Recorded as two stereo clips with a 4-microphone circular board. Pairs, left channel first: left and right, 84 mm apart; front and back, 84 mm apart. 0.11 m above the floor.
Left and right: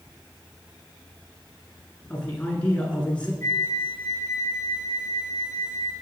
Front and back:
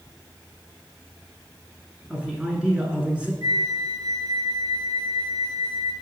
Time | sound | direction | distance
2.1 | a man speaking | 130° left | 1.1 m
3.4 | a flute | 140° left | 1.1 m